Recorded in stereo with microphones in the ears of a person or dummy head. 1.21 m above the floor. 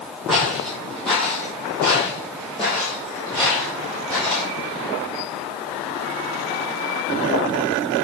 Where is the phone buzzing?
I don't hear a phone buzzing.